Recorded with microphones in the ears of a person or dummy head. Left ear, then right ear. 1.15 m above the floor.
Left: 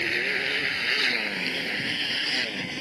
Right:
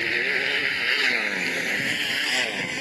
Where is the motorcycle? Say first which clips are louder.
Right 2 dB; 15° right (ahead or behind); by 2.8 s 40° right (ahead or behind).